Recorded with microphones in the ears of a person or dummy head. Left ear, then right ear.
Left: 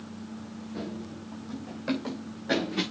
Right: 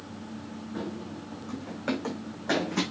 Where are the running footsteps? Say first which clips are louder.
Right 2 dB; 10° right (ahead or behind), 4 m; by 2.8 s 40° right (ahead or behind), 4.5 m.